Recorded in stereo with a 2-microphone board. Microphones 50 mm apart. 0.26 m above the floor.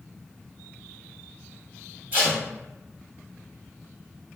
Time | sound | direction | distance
2.1 | tape being pulled | 35° right (ahead or behind) | 1.5 m